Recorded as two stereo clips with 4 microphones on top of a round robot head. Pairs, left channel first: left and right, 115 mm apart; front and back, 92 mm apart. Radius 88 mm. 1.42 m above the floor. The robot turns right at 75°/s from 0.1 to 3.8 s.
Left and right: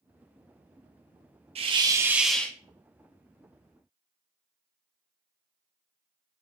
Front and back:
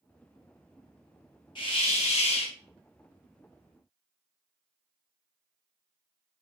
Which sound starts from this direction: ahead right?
A hiss, at 1.6 s.